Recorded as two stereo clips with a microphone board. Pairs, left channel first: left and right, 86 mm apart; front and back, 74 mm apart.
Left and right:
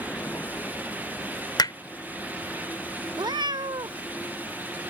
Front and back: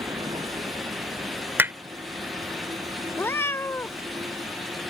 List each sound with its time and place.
0.0 s a vehicle: 155° left; by 4.9 s 160° left
1.6 s hammering: 120° left
3.2 s a cat meowing: 60° right